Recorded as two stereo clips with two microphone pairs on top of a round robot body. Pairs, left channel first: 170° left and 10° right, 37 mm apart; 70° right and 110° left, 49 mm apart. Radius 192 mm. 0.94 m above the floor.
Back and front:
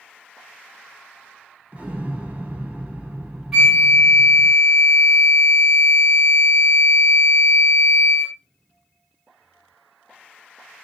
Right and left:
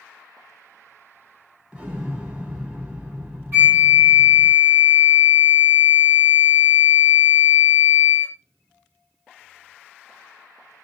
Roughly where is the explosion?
Ahead left.